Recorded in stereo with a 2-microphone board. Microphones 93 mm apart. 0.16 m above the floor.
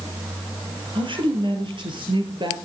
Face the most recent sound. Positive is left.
turn(degrees=-60)  # may be behind; listen again after turning